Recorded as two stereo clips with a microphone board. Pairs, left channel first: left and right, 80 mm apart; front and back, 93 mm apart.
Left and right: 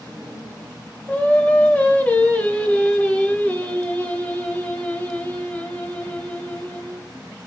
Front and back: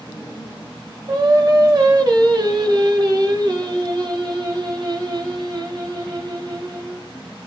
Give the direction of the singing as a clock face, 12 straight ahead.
7 o'clock.